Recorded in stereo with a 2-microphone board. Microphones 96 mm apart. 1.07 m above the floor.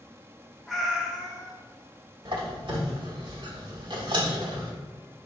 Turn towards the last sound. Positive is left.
turn(degrees=-55)  # may be behind; listen again after turning